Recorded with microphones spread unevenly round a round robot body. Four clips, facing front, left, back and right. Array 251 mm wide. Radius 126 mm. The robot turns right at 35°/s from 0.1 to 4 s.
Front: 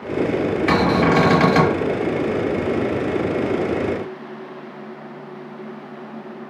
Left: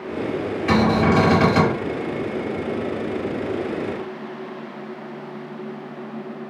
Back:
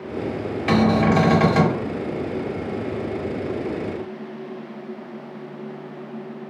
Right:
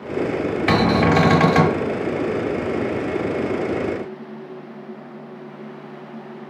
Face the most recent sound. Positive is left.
turn(degrees=35)